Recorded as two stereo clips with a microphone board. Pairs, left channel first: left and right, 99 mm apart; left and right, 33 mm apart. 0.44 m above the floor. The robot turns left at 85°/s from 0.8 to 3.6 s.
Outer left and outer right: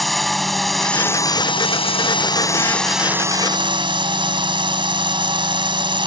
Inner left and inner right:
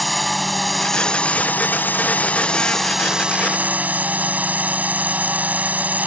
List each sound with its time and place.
0.0 s a drone: straight behind; by 6.1 s 60° right